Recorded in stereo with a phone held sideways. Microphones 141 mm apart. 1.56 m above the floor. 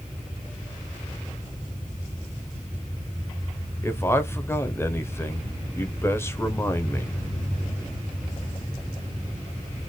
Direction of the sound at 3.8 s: 20° left (ahead or behind).